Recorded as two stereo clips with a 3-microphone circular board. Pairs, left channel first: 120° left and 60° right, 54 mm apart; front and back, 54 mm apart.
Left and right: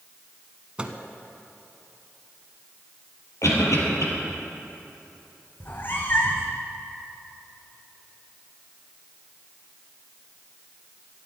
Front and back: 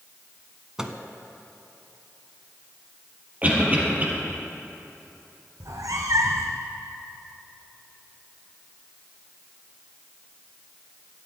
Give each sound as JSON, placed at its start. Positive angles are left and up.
{"t": 0.8, "sound": "a microwave", "azimuth_deg": -110, "distance_m": 1.0}
{"t": 3.4, "sound": "a cough", "azimuth_deg": 120, "distance_m": 4.5}
{"t": 5.6, "sound": "a cat meowing", "azimuth_deg": 175, "distance_m": 1.7}